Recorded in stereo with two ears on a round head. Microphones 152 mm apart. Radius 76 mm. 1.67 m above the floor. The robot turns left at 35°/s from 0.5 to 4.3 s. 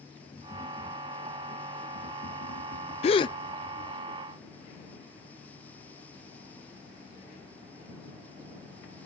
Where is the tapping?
160° left; by 4.0 s 40° left.